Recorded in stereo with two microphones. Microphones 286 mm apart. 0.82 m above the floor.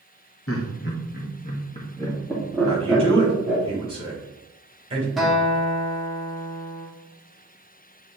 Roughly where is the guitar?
Centre.